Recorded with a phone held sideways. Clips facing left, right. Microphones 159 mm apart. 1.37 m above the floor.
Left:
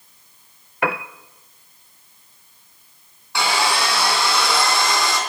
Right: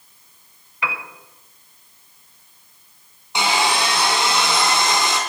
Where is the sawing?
20° right (ahead or behind), 2.5 m.